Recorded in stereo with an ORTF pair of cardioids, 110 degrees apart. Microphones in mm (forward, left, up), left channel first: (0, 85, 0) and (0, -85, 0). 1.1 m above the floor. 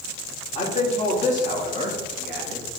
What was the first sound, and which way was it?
A man speaking, 35° left.